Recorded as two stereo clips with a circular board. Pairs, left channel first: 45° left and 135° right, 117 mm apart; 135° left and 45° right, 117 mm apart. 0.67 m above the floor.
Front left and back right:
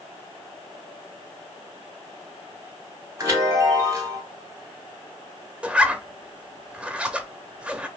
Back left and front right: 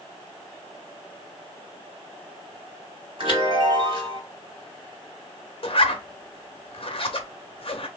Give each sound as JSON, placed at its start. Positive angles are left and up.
{"t": 3.2, "sound": "a chime", "azimuth_deg": -75, "distance_m": 2.5}
{"t": 5.6, "sound": "a zipper", "azimuth_deg": 145, "distance_m": 0.6}